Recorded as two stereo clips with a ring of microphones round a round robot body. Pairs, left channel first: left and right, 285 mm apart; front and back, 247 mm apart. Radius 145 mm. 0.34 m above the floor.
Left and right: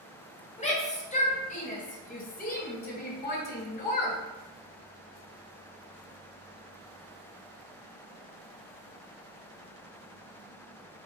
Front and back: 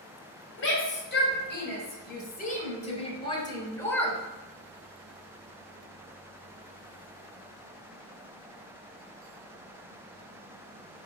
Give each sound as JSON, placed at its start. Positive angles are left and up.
{"t": 0.6, "sound": "a shout", "azimuth_deg": 25, "distance_m": 2.5}